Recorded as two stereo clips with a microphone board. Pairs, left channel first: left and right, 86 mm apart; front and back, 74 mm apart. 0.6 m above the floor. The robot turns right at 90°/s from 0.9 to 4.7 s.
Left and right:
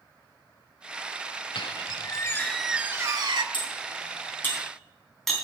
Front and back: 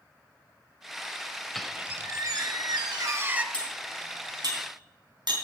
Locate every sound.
1.6 s a squeak: 85° left, 0.9 m; by 3.4 s 105° right, 0.9 m
3.5 s cutlery clinking: 75° left, 3.5 m; by 5.3 s straight behind, 3.5 m